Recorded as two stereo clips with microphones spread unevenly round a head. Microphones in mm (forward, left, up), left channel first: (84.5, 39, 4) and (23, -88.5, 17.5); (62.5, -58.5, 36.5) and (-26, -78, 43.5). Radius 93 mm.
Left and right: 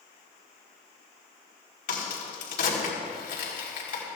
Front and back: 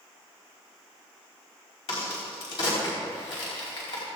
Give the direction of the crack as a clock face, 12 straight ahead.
10 o'clock.